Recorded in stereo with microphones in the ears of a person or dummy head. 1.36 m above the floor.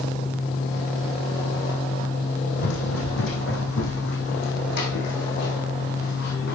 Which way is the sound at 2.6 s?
65° left (ahead or behind).